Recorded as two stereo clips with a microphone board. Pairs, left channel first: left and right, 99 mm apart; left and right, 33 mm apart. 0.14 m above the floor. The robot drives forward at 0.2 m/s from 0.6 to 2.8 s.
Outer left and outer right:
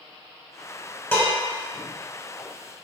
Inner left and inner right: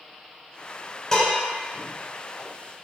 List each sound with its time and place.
1.1 s dishes clattering: 20° left (ahead or behind), 1.2 m; by 1.3 s 25° left (ahead or behind), 1.2 m